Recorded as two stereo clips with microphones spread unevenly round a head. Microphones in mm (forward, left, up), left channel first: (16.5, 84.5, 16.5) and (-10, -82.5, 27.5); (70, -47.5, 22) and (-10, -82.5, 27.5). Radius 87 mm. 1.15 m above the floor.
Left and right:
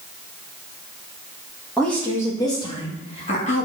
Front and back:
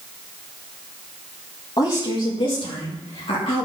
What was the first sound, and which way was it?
A woman speaking, 5° right.